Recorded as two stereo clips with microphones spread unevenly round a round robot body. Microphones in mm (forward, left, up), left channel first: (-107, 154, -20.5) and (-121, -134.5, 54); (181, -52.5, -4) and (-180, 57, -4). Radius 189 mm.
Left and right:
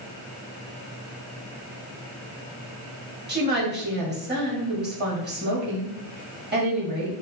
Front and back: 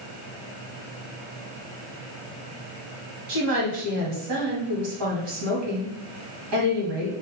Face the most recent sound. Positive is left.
turn(degrees=-155)